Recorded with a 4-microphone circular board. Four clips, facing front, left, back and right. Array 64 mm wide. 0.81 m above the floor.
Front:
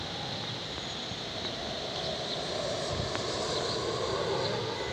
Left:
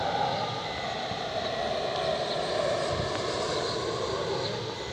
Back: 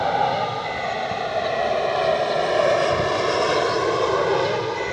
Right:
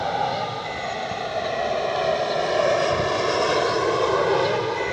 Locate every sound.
0.0 s an aircraft: 165° right; by 4.9 s 125° right